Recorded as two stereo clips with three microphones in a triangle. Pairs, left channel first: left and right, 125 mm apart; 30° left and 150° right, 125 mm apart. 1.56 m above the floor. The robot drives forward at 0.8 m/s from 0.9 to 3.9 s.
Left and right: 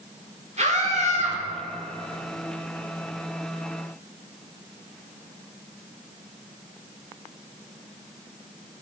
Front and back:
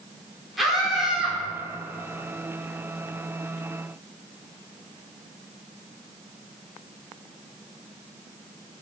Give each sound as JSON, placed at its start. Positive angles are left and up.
{"t": 0.6, "sound": "a scream", "azimuth_deg": -60, "distance_m": 3.5}